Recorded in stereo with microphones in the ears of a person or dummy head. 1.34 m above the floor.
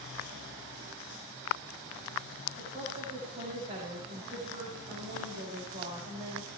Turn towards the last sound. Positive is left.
turn(degrees=-35)  # may be behind; listen again after turning